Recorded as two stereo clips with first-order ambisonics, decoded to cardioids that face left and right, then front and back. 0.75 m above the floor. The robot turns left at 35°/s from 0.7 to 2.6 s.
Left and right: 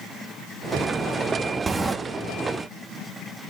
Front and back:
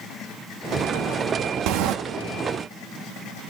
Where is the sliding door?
165° right, 0.8 m; by 1.9 s 175° right, 0.8 m.